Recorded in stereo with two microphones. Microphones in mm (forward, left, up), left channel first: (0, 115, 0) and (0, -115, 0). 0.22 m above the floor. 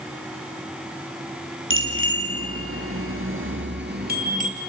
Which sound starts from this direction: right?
A bicycle bell, at 1.7 s.